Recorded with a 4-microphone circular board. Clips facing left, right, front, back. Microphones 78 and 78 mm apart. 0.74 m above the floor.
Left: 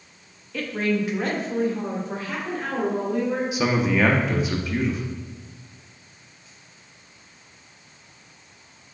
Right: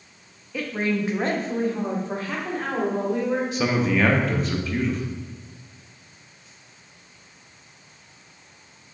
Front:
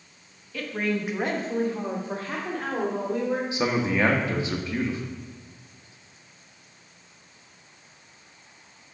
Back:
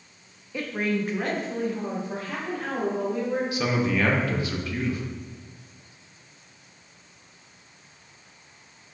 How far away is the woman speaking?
About 0.6 m.